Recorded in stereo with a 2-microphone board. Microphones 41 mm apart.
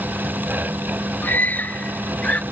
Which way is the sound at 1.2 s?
50° left (ahead or behind).